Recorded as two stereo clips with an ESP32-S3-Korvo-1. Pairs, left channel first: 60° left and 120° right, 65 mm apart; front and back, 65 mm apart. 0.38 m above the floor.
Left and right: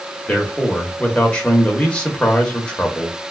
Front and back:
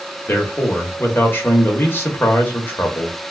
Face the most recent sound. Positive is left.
turn(degrees=0)